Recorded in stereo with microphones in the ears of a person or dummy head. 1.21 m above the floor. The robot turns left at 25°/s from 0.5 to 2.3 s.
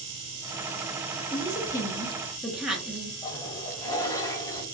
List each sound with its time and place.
1.3 s a woman speaking: 25° left (ahead or behind), 0.7 m; by 3.1 s centre (ahead or behind), 0.7 m
3.2 s a toilet flushing: 15° left (ahead or behind), 0.6 m